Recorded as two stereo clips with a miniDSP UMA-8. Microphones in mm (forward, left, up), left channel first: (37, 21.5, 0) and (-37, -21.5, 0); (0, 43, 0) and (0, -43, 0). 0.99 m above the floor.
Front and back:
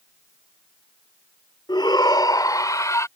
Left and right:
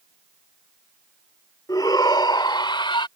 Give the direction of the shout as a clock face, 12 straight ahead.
10 o'clock.